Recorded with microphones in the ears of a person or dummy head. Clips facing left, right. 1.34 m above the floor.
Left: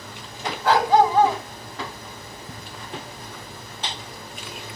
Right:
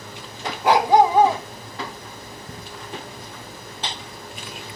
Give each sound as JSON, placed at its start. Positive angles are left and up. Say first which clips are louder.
{"t": 0.6, "sound": "a dog barking", "louder": "right 2 dB", "side_deg": -20, "distance_m": 2.5}